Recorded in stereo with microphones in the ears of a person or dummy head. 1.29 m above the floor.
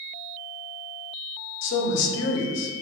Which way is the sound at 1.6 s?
65° left (ahead or behind).